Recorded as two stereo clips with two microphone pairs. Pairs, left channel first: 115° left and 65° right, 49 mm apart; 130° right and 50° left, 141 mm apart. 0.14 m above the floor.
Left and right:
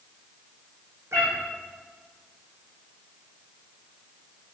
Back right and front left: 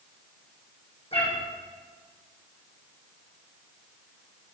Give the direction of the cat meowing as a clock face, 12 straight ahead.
3 o'clock.